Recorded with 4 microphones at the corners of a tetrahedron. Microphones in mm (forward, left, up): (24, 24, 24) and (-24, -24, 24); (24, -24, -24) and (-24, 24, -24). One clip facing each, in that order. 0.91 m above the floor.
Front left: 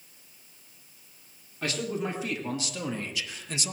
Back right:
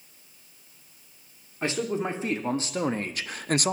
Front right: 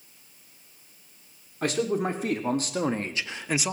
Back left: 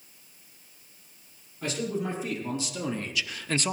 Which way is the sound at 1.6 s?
70° right.